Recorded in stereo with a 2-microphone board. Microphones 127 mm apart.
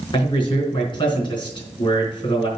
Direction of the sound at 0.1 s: 40° left (ahead or behind).